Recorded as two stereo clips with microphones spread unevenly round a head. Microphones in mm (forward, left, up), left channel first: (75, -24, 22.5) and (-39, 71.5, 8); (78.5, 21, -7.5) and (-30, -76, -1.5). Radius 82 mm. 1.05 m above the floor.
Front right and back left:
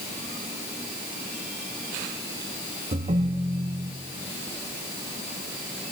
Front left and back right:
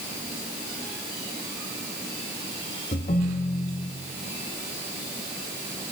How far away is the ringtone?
About 0.7 m.